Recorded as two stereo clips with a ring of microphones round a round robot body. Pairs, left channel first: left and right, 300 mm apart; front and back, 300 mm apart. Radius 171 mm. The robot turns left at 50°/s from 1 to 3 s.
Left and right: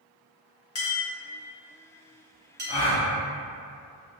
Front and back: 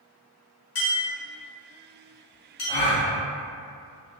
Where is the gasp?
60° left, 0.9 m; by 3.0 s 45° left, 0.9 m.